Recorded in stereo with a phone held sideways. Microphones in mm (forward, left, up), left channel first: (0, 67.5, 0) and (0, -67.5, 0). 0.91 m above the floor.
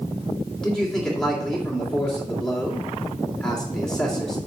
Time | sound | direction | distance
0.6 | a man speaking | 5° left (ahead or behind) | 2.5 m